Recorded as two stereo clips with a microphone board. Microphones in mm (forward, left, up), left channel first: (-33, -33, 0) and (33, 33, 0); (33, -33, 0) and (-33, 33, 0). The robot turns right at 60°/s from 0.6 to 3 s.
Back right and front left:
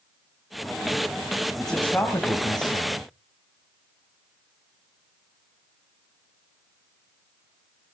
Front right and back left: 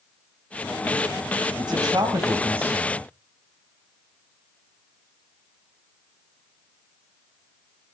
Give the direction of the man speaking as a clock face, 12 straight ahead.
7 o'clock.